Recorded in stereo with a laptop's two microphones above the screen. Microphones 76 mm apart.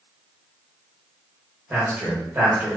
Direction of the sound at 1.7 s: 25° right (ahead or behind).